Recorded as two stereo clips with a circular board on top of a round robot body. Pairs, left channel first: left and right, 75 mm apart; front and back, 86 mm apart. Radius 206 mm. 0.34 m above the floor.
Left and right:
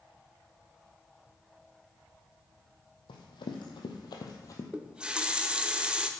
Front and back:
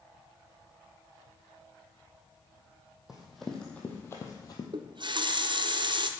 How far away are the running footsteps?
About 1.6 m.